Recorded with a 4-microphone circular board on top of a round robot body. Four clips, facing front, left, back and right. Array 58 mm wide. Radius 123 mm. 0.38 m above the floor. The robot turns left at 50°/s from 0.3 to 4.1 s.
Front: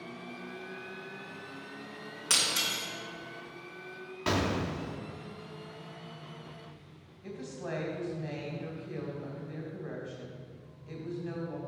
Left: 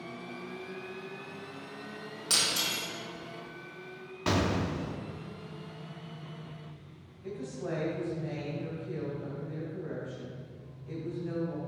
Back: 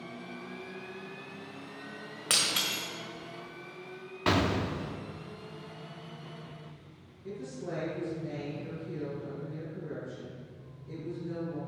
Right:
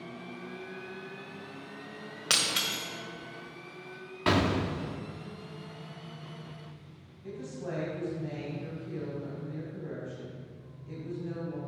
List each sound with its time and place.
2.3 s breaking glass: 115° right, 1.5 m; by 2.8 s 145° right, 1.5 m
4.3 s an explosion: 130° right, 0.7 m
7.2 s a woman speaking: 15° left, 2.5 m